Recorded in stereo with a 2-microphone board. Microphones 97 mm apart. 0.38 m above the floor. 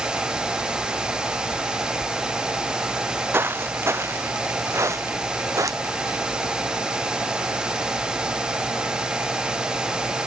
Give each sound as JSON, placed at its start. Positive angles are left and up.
{"t": 2.9, "sound": "footsteps", "side_deg": -20}